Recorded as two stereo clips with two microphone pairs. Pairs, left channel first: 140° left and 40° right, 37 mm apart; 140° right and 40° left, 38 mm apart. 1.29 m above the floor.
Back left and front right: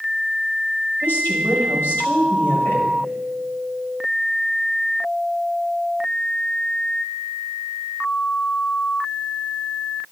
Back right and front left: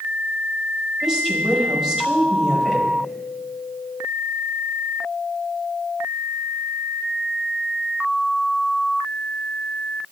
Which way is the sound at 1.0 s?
120° left.